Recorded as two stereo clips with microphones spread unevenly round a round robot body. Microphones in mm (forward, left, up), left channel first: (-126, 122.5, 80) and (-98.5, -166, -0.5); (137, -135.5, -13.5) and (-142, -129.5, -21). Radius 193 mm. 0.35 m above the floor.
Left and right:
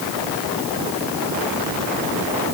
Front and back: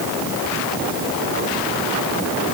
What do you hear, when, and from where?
Only background noise.